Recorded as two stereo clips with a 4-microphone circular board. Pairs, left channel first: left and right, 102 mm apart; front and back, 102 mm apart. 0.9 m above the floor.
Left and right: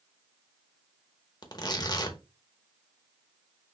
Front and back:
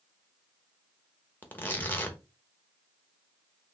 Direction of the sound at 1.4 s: 65° left.